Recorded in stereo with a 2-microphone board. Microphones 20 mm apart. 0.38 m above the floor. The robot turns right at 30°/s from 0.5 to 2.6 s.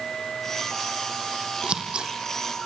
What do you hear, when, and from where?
1.6 s scissors: 60° right (ahead or behind), 4 m; by 2.1 s 45° right (ahead or behind), 4 m